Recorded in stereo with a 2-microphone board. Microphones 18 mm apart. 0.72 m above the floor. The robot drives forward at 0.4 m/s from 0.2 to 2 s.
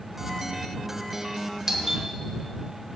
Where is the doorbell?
30° right (ahead or behind), 1.0 m.